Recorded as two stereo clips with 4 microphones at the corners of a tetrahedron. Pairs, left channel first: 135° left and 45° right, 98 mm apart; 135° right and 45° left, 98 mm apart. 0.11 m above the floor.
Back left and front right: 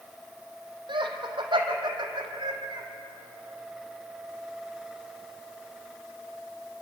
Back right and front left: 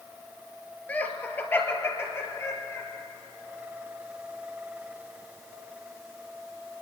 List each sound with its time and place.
0.9 s laughter: 60° right, 2.5 m; by 2.9 s 80° right, 3.5 m